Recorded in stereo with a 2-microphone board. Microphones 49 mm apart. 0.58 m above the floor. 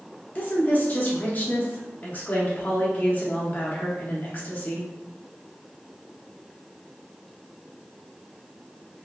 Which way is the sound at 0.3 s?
35° left (ahead or behind).